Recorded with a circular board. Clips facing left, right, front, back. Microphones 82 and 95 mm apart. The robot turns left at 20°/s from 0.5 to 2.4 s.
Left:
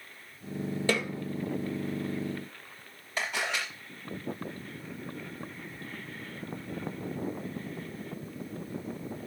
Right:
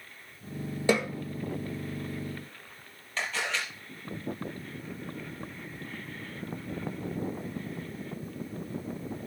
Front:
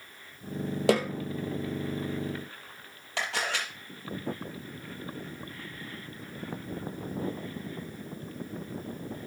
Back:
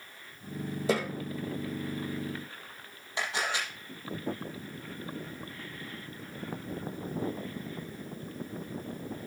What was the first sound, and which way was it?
A snare drum, 15° right.